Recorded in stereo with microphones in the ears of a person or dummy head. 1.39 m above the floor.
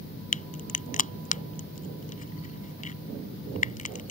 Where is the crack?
40° left (ahead or behind).